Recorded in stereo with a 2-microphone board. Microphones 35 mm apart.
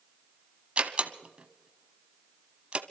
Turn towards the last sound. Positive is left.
turn(degrees=-35)  # may be behind; listen again after turning